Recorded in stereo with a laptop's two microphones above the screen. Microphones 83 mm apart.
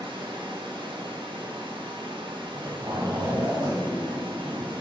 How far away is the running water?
About 0.8 m.